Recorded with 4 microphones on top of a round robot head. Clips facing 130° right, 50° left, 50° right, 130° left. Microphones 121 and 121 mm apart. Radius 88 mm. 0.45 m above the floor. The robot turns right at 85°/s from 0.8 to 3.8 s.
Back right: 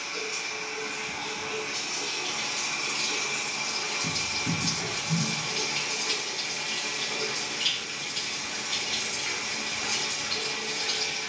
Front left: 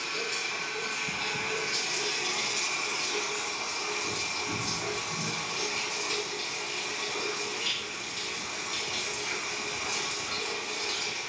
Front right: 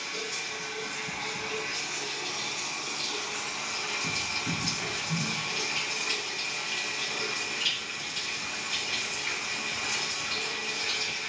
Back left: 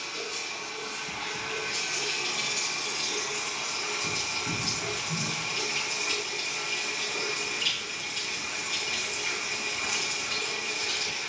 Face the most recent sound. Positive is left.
turn(degrees=-130)